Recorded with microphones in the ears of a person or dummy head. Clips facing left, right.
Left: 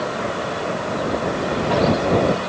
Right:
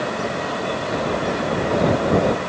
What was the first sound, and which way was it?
Only background noise.